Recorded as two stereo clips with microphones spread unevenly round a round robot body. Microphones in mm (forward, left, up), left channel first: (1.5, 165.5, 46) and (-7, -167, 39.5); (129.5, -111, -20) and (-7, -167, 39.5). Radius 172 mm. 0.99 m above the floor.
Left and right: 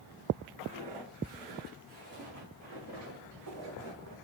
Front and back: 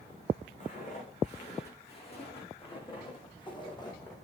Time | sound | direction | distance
0.6 | footsteps | 20° right | 4.5 m